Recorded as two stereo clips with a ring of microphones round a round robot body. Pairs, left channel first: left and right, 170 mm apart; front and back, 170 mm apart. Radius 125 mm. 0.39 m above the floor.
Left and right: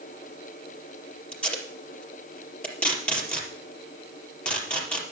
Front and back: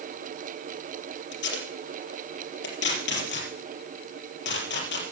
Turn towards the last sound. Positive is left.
turn(degrees=5)